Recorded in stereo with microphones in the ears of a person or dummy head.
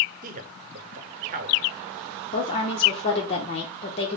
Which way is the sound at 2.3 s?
35° left (ahead or behind).